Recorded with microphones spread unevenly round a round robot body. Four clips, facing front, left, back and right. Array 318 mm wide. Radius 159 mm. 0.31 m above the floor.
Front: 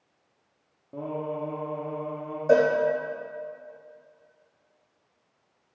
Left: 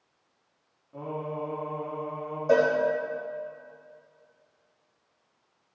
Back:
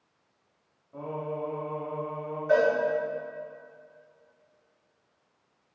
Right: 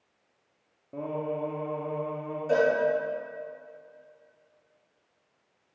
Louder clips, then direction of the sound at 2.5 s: Left 2 dB, front 3 dB; 20° left.